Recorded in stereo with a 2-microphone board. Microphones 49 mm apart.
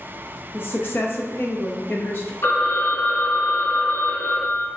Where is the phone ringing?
50° left (ahead or behind), 0.7 m.